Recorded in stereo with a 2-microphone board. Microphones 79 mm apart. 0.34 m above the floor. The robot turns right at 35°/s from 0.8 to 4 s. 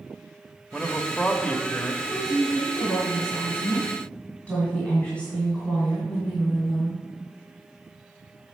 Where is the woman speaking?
95° left, 2 m; by 7.0 s 165° left, 2 m.